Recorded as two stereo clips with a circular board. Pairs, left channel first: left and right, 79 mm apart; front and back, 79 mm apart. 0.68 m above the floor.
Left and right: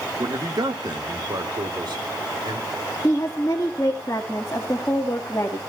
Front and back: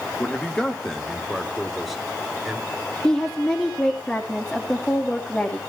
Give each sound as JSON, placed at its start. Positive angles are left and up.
{"t": 0.2, "sound": "a man speaking", "azimuth_deg": -70, "distance_m": 1.6}
{"t": 3.0, "sound": "a woman speaking", "azimuth_deg": 65, "distance_m": 1.4}